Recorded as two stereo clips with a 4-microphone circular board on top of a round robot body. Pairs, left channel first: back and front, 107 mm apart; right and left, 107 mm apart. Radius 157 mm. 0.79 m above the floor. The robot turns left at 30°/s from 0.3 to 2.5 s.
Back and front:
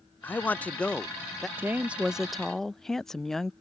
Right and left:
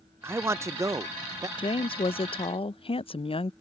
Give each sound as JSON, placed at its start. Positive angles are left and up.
{"t": 0.2, "sound": "a man speaking", "azimuth_deg": 130}
{"t": 1.6, "sound": "a woman speaking", "azimuth_deg": -65}